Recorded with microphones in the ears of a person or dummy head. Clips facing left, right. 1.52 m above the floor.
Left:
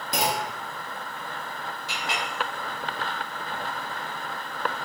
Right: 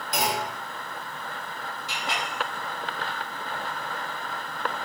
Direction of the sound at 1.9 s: 60° right (ahead or behind).